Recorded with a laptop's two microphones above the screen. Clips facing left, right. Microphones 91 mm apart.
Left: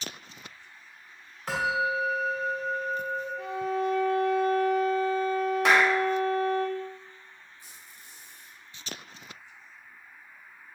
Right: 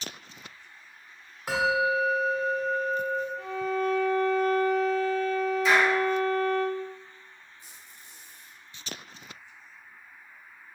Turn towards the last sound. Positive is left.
turn(degrees=-25)  # may be behind; listen again after turning